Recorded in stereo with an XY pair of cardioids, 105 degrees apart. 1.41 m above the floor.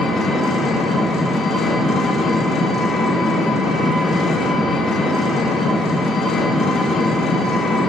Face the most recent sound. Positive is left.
turn(degrees=55)